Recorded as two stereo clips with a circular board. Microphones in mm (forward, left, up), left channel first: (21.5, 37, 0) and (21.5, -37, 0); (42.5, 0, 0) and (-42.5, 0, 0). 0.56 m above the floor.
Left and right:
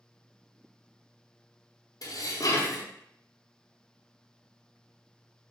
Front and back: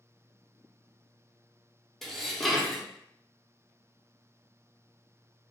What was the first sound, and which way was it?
Dishes clattering, 85° left.